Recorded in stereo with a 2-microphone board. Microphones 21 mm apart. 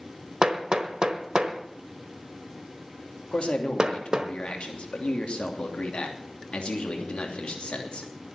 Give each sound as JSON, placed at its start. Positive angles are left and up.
{"t": 0.4, "sound": "hammering", "side_deg": -40, "distance_m": 1.2}
{"t": 3.3, "sound": "a man speaking", "side_deg": 65, "distance_m": 2.5}